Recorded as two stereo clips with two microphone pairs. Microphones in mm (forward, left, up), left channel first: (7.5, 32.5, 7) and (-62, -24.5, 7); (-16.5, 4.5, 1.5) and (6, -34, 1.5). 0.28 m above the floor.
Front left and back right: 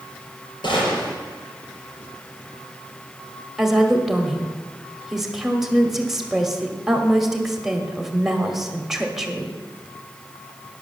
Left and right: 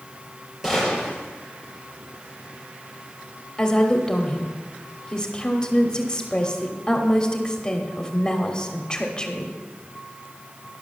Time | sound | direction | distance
0.6 | a gunshot | 20° left | 4.5 m
3.6 | a woman speaking | 145° left | 1.2 m